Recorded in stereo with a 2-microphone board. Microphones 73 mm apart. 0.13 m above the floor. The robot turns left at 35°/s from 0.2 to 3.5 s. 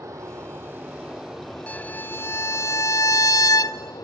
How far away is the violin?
About 0.6 m.